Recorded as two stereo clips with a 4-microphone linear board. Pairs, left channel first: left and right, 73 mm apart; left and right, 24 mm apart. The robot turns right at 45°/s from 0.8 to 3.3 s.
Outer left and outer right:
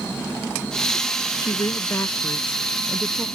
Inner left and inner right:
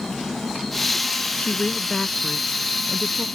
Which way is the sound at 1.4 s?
100° left.